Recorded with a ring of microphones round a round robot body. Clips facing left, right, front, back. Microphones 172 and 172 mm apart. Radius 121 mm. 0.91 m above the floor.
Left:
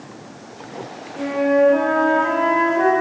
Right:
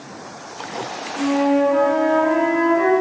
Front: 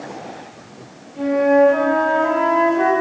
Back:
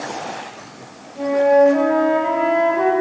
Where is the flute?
115° left, 3.5 m.